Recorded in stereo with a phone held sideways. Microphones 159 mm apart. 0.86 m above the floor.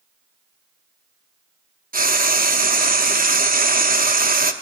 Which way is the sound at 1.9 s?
65° right (ahead or behind).